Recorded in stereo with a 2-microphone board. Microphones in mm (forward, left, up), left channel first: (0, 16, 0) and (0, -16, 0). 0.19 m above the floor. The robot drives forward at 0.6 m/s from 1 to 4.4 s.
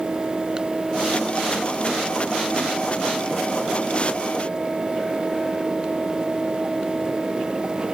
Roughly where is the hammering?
No hammering in this recording.